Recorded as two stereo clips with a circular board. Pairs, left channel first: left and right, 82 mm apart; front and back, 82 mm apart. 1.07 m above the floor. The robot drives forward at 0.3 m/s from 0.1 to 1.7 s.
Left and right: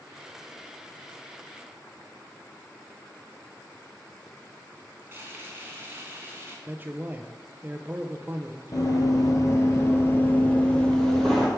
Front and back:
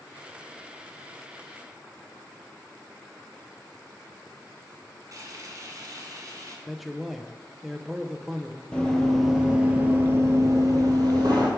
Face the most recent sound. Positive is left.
turn(degrees=175)